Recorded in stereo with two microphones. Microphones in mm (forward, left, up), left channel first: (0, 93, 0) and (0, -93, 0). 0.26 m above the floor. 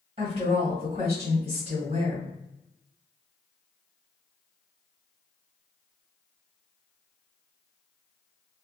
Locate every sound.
0.2 s a woman speaking: 30° right (ahead or behind), 1.3 m